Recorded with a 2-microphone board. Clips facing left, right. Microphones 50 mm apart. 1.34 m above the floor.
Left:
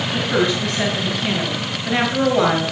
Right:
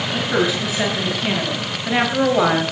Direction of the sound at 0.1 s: 5° right (ahead or behind).